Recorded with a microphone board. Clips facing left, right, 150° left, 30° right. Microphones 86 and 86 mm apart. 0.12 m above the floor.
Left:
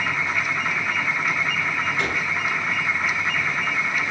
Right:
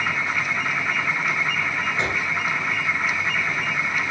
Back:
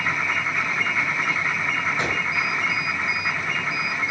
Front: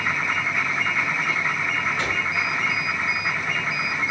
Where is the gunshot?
145° right, 1.2 m.